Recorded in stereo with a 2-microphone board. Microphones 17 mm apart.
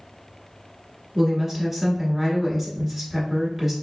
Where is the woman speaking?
15° right (ahead or behind), 1.3 m.